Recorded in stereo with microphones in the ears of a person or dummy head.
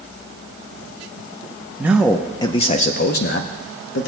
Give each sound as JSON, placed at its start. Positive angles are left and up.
{"t": 1.8, "sound": "a man speaking", "side_deg": -5, "distance_m": 0.7}